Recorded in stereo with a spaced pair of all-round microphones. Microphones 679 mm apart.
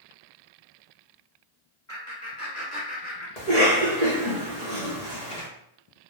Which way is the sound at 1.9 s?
25° left (ahead or behind).